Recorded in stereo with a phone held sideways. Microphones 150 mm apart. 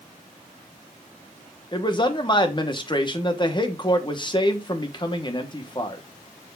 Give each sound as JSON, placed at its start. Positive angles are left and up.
{"t": 1.7, "sound": "a man speaking", "side_deg": 30, "distance_m": 1.2}